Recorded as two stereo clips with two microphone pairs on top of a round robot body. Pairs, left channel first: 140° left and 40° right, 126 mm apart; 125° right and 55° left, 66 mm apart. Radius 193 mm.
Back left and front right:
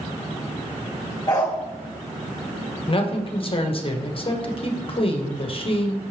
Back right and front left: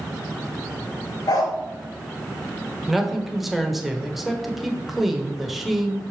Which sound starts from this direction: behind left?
A man speaking, at 2.9 s.